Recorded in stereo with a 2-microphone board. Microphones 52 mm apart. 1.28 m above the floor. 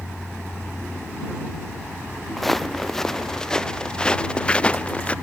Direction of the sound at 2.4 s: 5° left (ahead or behind).